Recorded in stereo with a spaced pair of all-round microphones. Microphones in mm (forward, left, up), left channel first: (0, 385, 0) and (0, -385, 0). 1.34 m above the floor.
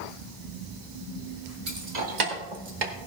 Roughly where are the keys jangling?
Right.